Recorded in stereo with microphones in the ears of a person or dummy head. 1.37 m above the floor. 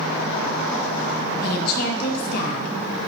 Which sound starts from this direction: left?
A woman speaking, at 1.4 s.